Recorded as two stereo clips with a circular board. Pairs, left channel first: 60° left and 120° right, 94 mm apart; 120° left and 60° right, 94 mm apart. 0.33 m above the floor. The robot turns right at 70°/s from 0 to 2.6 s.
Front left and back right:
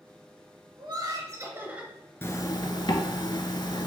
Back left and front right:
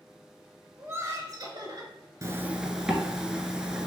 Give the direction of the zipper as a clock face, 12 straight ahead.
12 o'clock.